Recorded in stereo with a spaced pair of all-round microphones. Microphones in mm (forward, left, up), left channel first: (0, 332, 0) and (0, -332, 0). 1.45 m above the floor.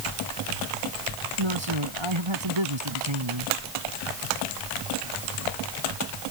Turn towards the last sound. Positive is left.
turn(degrees=-40)  # may be behind; listen again after turning